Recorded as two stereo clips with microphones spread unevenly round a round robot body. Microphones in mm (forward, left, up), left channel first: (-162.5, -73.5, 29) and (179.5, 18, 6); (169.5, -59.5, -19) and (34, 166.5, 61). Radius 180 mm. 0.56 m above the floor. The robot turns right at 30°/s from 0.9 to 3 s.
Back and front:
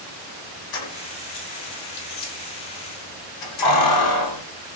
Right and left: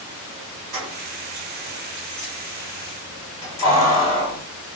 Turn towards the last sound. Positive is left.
turn(degrees=-135)